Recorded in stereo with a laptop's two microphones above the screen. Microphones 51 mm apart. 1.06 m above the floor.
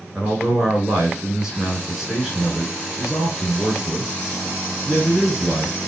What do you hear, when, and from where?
0.1 s a man speaking: 15° right (ahead or behind), 3.5 m